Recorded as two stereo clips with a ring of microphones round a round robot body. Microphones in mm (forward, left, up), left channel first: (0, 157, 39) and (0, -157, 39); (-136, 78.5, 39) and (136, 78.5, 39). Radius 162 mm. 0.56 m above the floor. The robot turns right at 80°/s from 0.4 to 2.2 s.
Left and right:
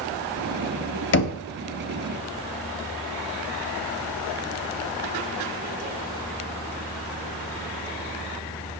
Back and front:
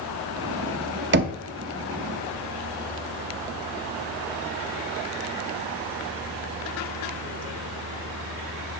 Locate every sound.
1.1 s knocking: 40° left, 0.7 m; by 1.4 s 60° left, 0.7 m